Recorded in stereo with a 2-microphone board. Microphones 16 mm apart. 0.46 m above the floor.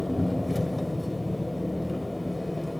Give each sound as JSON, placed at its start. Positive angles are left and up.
{"t": 0.0, "sound": "an engine running", "side_deg": -5, "distance_m": 1.6}